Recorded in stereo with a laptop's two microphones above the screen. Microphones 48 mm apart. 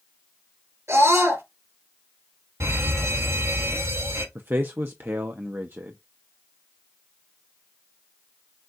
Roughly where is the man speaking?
Right.